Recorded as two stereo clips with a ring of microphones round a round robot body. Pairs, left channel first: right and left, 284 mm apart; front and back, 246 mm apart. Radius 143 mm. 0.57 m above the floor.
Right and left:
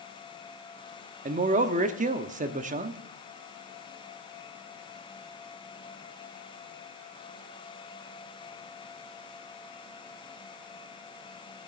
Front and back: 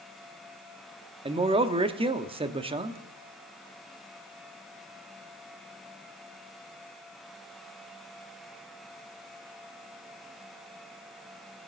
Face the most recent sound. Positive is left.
turn(degrees=130)